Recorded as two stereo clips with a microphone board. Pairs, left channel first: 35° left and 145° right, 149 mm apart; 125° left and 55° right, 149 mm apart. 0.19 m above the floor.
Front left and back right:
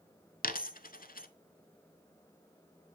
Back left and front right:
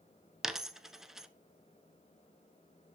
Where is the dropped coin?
30° left, 0.6 m.